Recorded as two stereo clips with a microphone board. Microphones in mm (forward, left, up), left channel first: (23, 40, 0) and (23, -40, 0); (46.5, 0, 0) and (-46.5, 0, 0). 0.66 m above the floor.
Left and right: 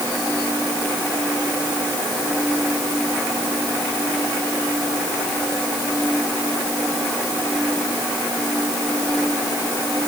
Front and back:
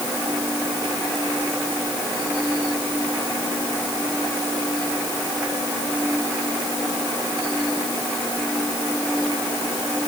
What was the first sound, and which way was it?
Only background noise.